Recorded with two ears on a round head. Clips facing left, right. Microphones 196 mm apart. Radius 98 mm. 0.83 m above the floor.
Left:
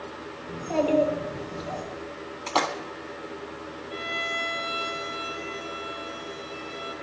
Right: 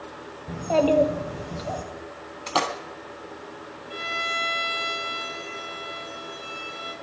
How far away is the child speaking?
About 2 m.